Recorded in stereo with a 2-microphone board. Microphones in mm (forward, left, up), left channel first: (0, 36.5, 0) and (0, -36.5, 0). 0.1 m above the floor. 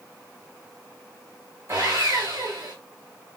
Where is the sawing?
45° right (ahead or behind), 4.5 m.